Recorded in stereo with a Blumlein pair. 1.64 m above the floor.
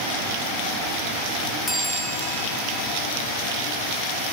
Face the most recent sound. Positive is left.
turn(degrees=10)